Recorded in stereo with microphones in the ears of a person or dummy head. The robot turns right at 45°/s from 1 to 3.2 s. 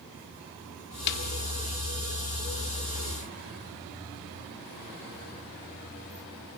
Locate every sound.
1.1 s a snare drum: 55° left (ahead or behind), 1.2 m; by 1.2 s 60° left (ahead or behind), 1.2 m